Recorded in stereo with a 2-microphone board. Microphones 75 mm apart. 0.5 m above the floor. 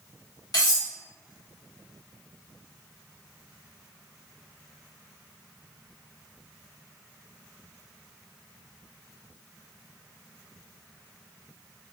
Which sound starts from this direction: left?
Cutlery clinking, at 0.5 s.